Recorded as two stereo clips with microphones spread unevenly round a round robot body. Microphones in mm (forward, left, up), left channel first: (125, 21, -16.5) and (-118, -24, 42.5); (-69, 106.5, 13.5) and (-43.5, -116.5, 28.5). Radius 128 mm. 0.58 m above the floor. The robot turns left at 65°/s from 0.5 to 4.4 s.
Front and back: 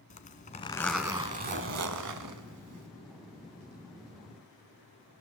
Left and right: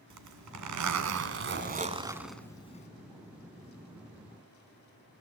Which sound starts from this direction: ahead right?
A zipper, at 0.1 s.